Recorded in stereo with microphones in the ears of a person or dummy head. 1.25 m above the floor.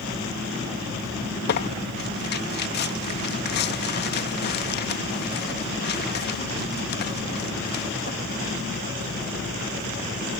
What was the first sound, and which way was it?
Tearing paper, 50° left (ahead or behind).